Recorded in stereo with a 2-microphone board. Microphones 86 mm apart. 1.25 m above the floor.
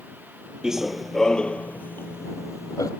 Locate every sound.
0.6 s running footsteps: 5° right (ahead or behind); by 2.9 s 45° left (ahead or behind)